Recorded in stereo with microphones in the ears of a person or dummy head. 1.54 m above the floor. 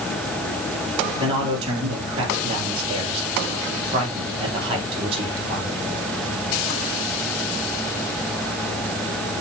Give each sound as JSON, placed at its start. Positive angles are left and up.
{"t": 1.2, "sound": "a man speaking", "side_deg": -35, "distance_m": 4.0}